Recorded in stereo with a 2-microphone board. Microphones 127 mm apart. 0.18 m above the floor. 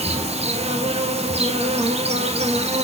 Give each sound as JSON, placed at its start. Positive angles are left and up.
{"t": 0.0, "sound": "an insect", "side_deg": -55, "distance_m": 1.4}